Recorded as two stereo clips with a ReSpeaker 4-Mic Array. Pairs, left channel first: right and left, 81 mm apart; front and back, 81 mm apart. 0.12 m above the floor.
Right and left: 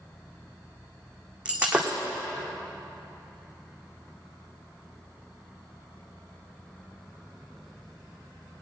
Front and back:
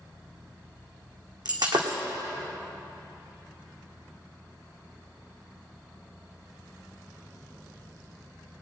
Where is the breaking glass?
165° left, 2.0 m.